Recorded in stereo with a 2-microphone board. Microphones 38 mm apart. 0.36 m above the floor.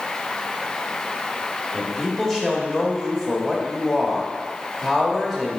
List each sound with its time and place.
1.7 s a man speaking: 10° left (ahead or behind), 1.2 m